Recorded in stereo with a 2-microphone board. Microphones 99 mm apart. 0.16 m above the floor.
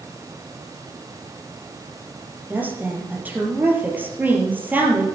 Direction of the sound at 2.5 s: 15° right (ahead or behind).